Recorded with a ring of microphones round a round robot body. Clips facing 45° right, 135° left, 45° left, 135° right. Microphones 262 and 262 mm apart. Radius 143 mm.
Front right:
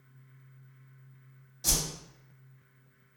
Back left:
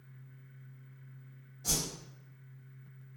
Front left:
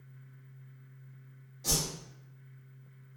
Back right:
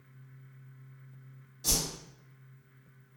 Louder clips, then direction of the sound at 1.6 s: Front right 1 dB, even; 65° right.